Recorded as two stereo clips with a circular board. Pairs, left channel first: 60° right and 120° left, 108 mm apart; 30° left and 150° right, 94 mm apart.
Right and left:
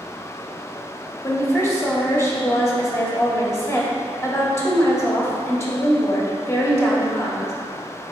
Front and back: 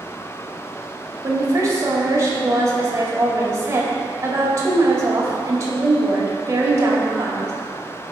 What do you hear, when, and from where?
1.2 s a woman speaking: 110° right, 1.4 m